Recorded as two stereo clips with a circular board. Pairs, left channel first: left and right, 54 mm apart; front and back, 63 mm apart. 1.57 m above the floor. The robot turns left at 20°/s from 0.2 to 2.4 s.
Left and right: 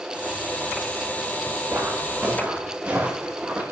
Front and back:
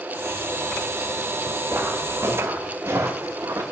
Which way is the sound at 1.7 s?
130° right.